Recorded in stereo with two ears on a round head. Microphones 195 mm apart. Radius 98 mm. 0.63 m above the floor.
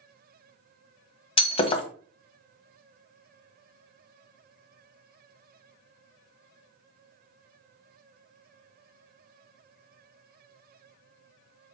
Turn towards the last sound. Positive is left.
turn(degrees=25)  # may be behind; listen again after turning